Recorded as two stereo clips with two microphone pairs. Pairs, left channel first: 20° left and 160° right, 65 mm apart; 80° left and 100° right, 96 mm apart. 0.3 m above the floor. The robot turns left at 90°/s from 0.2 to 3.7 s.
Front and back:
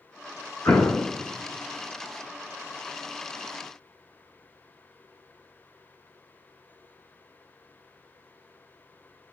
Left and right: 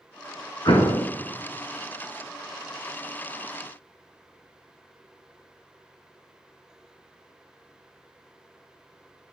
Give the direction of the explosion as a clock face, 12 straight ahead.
10 o'clock.